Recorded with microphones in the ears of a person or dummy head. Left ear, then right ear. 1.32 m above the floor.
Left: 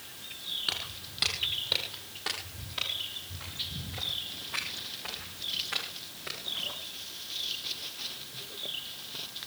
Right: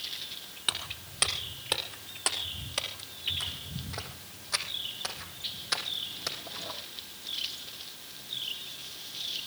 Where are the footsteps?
25° right (ahead or behind), 3 m; by 6.7 s 70° right (ahead or behind), 4 m.